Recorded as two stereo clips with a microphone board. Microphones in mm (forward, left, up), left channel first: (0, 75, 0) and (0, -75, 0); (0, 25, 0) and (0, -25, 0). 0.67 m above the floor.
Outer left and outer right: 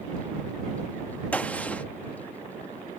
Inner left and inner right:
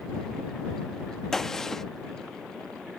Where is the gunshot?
10° left (ahead or behind).